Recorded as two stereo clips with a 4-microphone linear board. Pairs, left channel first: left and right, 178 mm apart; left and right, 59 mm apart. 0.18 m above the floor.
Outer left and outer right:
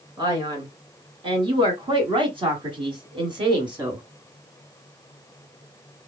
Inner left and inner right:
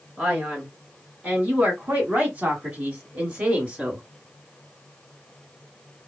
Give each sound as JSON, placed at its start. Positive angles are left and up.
{"t": 0.2, "sound": "a man speaking", "side_deg": -25, "distance_m": 2.0}